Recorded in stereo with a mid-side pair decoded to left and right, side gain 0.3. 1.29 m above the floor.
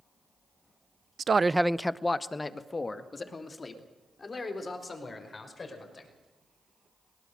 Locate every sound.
1.2 s a man speaking: 65° right, 0.5 m; by 6.1 s 50° left, 6 m